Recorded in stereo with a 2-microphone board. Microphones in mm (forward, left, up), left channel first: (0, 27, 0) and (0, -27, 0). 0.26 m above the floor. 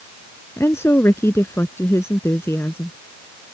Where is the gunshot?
No gunshot in this recording.